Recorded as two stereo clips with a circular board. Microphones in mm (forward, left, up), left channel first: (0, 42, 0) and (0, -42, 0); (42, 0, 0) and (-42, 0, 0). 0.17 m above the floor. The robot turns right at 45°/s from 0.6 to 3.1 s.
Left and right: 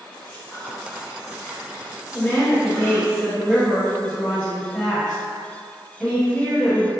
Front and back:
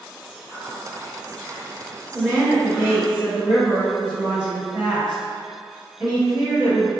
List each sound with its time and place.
0.3 s whispering: 45° right, 1.5 m; by 3.1 s 70° left, 1.5 m
2.1 s a woman speaking: 115° left, 1.1 m; by 6.9 s 160° left, 1.1 m